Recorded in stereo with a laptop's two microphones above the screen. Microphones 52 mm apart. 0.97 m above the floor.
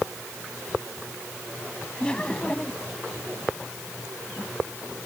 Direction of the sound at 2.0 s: 15° left (ahead or behind).